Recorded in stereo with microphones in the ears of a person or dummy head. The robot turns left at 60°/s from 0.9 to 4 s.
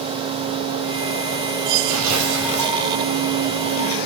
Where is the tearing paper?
75° right, 5 m; by 2.8 s 130° right, 5 m.